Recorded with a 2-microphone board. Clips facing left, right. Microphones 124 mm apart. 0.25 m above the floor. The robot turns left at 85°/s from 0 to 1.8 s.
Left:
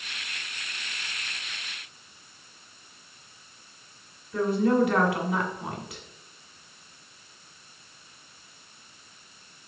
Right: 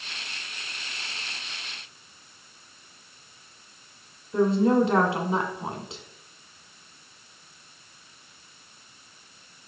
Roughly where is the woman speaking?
Right.